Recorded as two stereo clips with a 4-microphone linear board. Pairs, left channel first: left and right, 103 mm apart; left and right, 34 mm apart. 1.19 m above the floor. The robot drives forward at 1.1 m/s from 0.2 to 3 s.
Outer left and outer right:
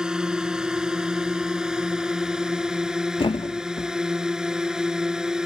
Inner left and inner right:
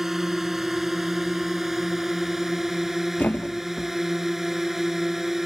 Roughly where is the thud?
Left.